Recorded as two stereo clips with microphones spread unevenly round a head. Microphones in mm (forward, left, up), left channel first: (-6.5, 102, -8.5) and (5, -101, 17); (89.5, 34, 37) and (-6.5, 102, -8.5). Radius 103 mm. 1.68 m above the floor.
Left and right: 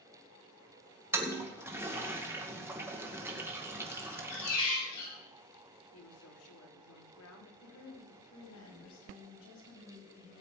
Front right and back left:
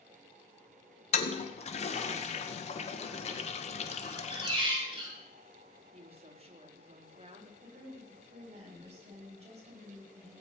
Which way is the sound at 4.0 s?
95° left.